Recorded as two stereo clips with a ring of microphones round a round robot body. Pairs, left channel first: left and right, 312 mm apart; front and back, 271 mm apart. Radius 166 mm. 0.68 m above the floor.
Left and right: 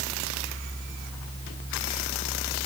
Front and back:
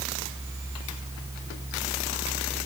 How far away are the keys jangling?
I don't hear keys jangling.